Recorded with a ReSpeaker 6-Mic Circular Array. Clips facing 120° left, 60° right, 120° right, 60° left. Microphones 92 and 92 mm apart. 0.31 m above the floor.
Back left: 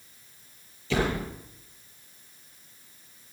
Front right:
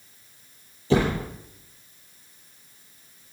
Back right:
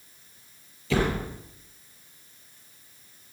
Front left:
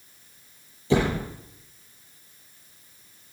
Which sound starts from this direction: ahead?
A door slam, at 0.9 s.